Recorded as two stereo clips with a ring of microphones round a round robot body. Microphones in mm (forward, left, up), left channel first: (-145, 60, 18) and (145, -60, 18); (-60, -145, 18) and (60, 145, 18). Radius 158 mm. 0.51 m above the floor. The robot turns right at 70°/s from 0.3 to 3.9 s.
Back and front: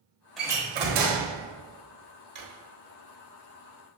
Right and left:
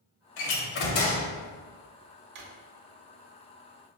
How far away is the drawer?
About 1.0 m.